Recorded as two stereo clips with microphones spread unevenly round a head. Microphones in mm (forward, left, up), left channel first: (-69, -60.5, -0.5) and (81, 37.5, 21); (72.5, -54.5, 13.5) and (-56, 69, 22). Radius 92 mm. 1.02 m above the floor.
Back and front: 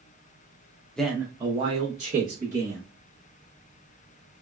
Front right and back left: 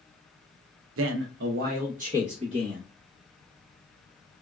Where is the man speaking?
130° left, 0.5 m; by 2.8 s 80° left, 1.4 m.